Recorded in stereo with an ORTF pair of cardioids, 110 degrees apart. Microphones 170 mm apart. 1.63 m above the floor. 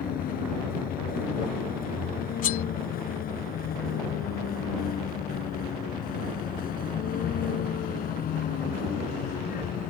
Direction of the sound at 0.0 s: 60° left.